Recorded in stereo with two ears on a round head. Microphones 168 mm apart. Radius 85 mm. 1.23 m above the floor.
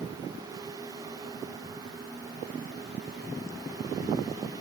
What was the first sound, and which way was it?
Only background noise.